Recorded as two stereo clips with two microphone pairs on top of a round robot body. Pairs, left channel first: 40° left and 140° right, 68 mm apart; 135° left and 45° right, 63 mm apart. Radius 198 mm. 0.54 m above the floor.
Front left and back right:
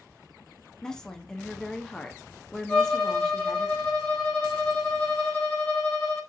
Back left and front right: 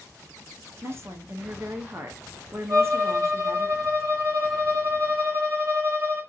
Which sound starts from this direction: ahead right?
A woman speaking, at 0.8 s.